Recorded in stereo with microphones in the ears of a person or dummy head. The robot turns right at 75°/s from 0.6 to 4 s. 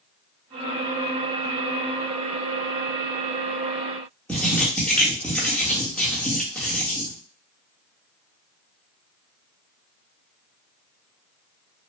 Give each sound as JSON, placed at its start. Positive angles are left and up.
{"t": 4.3, "sound": "writing", "side_deg": 5, "distance_m": 1.0}